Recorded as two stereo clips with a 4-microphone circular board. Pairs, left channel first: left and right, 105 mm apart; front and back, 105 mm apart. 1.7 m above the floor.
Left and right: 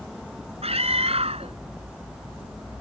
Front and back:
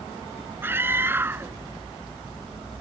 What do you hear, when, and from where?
0.6 s a scream: 110° right